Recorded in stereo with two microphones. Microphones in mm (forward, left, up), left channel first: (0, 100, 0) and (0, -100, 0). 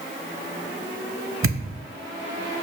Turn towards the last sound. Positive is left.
turn(degrees=-75)  # may be behind; listen again after turning